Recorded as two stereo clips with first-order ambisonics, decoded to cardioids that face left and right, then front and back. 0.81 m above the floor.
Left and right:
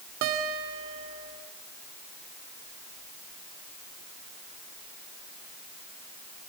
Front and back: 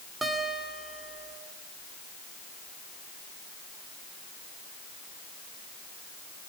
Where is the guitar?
100° right, 3 m.